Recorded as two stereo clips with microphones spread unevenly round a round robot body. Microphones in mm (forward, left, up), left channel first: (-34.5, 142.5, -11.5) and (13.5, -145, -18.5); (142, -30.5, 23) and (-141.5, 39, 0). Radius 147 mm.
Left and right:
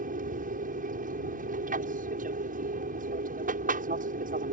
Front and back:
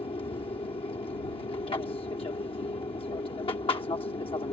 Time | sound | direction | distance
0.0 | an aircraft | 75° right | ?